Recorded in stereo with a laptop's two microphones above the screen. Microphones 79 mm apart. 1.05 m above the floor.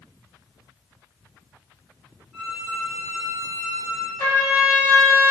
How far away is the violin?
About 0.7 m.